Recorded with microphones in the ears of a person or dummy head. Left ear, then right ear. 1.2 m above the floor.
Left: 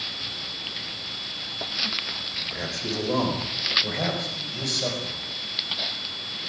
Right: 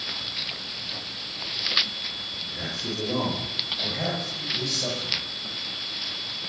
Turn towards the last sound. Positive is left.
turn(degrees=25)  # may be behind; listen again after turning